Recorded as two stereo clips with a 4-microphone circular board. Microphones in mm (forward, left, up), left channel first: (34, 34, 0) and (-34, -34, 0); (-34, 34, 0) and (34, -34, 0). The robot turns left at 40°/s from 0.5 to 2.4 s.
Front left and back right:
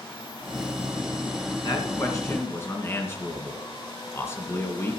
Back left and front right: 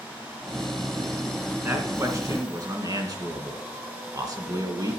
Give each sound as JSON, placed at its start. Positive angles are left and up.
{"t": 1.6, "sound": "a man speaking", "azimuth_deg": 25, "distance_m": 2.5}